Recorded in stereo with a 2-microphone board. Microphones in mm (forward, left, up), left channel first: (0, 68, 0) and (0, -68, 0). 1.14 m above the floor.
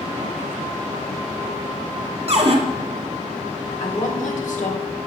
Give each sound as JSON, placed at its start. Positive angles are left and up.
{"t": 2.3, "sound": "a cupboard door", "side_deg": -50, "distance_m": 1.0}
{"t": 3.8, "sound": "a woman speaking", "side_deg": 70, "distance_m": 1.4}